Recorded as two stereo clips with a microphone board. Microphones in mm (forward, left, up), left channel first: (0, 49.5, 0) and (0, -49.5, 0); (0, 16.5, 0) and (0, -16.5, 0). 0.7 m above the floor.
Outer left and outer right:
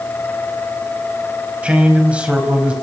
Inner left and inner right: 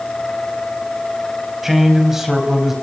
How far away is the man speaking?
About 5.5 m.